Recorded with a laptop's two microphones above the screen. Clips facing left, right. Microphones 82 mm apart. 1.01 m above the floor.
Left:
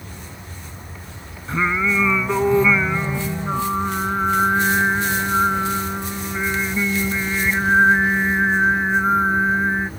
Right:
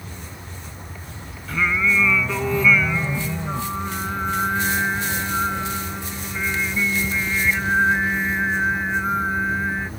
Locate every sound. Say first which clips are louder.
1.5 s singing: left 1 dB; 25° left (ahead or behind)